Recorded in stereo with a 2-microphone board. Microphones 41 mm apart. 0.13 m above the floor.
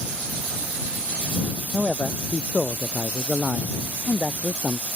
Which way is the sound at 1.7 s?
5° left (ahead or behind).